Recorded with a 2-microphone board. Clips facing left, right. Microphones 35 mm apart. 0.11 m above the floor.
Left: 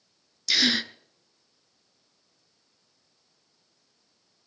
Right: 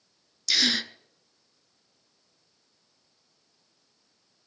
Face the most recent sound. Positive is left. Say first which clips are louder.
# left 1 dB
turn(degrees=10)  # may be behind; listen again after turning